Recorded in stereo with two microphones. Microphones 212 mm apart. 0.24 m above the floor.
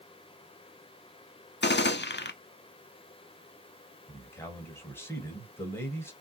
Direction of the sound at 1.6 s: 55° left (ahead or behind).